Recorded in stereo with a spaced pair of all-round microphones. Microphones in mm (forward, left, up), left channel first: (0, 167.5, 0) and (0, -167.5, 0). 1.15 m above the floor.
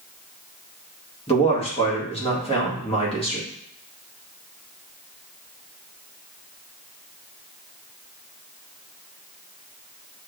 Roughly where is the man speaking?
Centre.